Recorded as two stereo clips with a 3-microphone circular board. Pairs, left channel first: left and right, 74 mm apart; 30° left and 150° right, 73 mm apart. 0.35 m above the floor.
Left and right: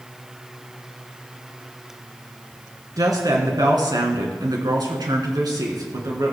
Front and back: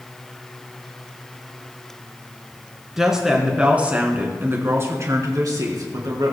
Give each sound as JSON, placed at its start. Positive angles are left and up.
{"t": 3.0, "sound": "a woman speaking", "azimuth_deg": -65, "distance_m": 3.5}